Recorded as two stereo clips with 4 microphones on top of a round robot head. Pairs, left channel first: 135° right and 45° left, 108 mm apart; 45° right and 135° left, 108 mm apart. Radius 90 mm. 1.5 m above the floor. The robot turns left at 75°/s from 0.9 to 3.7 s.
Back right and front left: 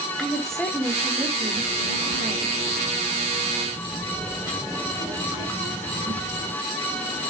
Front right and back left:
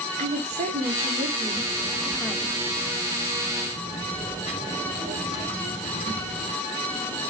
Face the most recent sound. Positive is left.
turn(degrees=-75)